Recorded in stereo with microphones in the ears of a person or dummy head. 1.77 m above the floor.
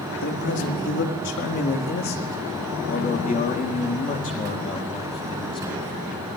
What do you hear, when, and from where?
0.2 s a man speaking: 65° left (ahead or behind), 4 m; by 6.3 s 20° left (ahead or behind), 5.5 m